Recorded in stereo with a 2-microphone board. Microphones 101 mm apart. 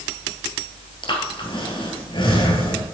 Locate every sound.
1.0 s breathing: 55° left (ahead or behind), 2.5 m